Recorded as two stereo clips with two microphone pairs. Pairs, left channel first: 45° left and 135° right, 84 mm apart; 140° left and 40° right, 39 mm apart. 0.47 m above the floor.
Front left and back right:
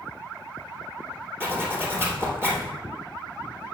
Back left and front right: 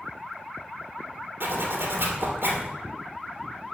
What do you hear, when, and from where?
1.4 s a zipper: 70° right, 2.5 m